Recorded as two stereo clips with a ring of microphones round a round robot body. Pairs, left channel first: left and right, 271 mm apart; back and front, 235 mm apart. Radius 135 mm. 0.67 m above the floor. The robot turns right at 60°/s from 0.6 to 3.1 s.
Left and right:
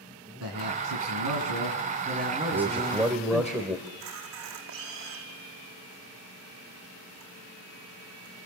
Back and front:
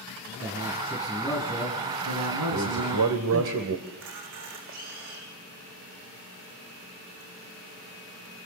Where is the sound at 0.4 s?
125° right, 6.5 m; by 3.5 s 25° left, 6.5 m.